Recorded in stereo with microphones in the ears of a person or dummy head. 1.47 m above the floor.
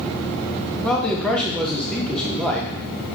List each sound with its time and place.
0.8 s a man speaking: 10° left (ahead or behind), 0.8 m